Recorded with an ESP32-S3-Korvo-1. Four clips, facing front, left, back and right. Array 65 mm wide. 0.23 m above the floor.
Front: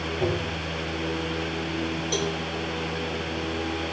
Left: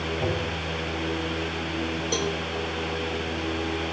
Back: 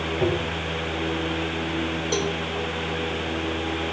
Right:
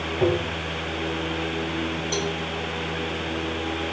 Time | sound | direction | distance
0.2 | tapping | 125° right | 8 m
2.1 | a cowbell | 155° left | 5 m